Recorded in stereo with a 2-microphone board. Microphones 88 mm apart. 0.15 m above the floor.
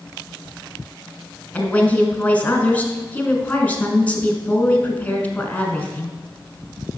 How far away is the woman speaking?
About 1.2 m.